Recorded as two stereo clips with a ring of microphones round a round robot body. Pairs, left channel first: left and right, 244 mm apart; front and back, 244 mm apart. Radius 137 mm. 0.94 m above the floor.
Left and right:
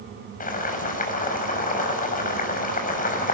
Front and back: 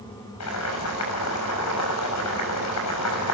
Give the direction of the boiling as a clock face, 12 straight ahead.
11 o'clock.